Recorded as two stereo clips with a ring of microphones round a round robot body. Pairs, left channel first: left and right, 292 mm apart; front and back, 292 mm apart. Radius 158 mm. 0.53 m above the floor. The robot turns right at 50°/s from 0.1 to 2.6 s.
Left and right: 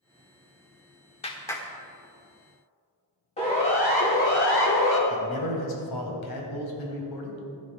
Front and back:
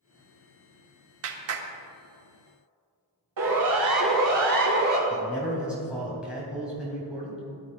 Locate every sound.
1.2 s a clap: 155° left, 1.2 m; by 1.7 s 175° left, 1.2 m
3.4 s a siren: 160° left, 3 m; by 5.0 s 120° left, 2.0 m
5.1 s a man speaking: 95° left, 3 m